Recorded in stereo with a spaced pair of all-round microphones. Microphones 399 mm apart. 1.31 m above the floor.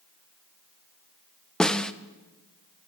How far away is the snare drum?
About 0.8 m.